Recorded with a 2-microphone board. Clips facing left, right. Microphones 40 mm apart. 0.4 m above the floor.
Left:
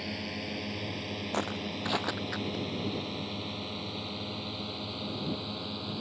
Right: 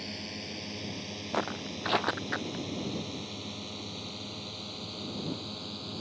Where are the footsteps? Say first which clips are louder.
Right 2 dB; 10° right (ahead or behind); by 2.6 s 30° right (ahead or behind).